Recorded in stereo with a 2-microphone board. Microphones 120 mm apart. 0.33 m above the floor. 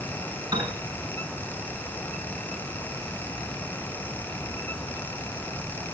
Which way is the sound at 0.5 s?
35° right (ahead or behind).